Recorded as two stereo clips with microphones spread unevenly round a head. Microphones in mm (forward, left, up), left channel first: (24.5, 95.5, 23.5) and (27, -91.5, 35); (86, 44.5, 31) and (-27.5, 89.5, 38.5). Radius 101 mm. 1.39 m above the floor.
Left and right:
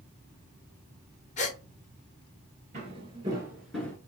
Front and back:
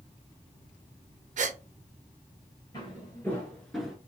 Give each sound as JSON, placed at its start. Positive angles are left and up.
{"t": 1.4, "sound": "a gasp", "azimuth_deg": 145, "distance_m": 0.9}
{"t": 2.7, "sound": "footsteps", "azimuth_deg": -75, "distance_m": 1.6}